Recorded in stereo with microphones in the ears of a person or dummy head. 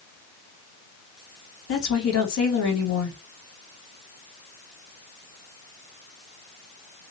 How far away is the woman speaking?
About 2 m.